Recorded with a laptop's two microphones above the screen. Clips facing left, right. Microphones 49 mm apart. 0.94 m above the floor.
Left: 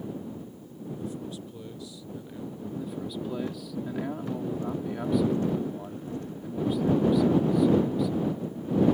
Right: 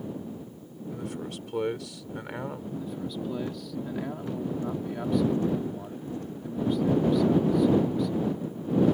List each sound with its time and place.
0.9 s a man speaking: 75° right (ahead or behind)
2.7 s a man speaking: 5° left (ahead or behind)